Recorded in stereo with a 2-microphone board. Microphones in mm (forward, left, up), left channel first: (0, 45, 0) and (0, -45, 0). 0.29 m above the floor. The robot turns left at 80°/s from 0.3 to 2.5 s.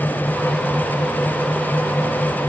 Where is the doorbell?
I don't hear a doorbell.